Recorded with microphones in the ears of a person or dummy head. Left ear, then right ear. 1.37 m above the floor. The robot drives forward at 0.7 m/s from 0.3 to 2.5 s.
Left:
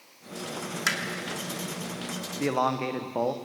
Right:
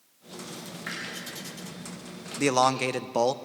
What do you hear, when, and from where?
0.9 s hammering: 85° left, 2.5 m
2.4 s a man speaking: 80° right, 0.8 m; by 3.4 s 75° right (ahead or behind), 0.8 m